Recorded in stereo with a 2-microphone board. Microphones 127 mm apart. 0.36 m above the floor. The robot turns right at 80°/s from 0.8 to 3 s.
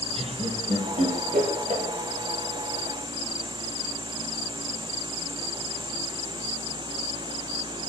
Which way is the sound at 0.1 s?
50° right (ahead or behind).